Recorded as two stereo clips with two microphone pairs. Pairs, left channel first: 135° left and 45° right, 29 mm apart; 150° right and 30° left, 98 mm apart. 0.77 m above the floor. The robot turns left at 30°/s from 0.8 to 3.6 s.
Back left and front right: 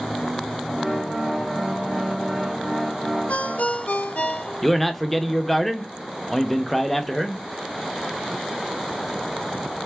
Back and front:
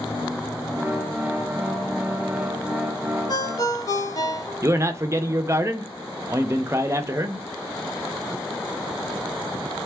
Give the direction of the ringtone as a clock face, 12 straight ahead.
7 o'clock.